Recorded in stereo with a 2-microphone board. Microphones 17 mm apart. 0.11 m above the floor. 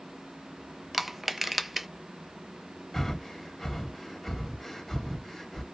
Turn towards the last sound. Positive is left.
turn(degrees=20)  # may be behind; listen again after turning